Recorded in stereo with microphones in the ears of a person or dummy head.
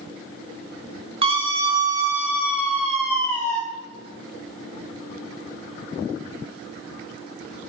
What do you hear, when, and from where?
1.2 s a scream: 25° right (ahead or behind), 1.6 m; by 3.6 s 20° left (ahead or behind), 1.6 m